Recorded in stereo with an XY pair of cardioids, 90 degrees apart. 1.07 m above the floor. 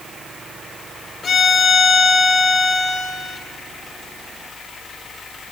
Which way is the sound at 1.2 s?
55° left.